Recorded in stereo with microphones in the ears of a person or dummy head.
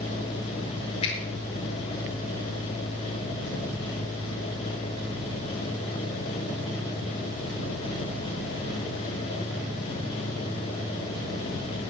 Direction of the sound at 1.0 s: 35° left (ahead or behind).